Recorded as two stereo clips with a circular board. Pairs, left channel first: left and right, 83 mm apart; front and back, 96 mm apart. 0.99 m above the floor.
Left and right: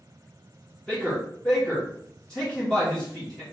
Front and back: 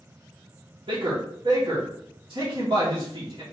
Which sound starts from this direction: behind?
A man speaking, at 0.9 s.